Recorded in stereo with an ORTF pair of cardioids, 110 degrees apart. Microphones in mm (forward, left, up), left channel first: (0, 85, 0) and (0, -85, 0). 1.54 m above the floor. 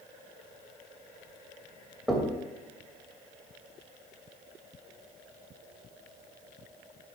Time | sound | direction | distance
2.1 | knocking | straight ahead | 1.9 m